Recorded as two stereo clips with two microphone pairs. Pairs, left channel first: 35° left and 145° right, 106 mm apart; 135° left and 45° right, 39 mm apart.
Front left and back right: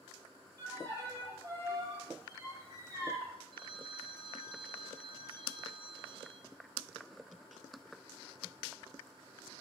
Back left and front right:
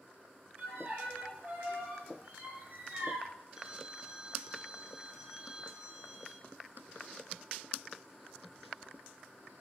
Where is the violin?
80° right, 7.5 m.